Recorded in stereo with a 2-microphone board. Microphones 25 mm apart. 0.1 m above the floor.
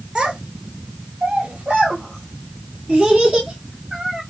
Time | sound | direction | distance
0.1 | a child speaking | 25° right (ahead or behind) | 1.0 m